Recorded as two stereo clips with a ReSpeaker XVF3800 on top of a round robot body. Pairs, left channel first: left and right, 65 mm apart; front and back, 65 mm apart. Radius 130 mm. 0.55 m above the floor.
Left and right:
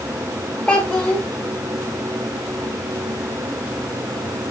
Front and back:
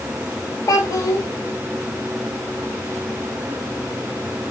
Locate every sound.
0.7 s a child speaking: 20° left, 0.8 m